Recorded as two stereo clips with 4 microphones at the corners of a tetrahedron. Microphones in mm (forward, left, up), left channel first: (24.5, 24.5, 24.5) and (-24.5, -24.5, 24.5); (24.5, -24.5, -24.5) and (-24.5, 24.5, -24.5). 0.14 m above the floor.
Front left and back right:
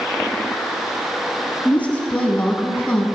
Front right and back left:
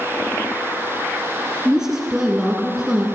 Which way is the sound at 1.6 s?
70° left.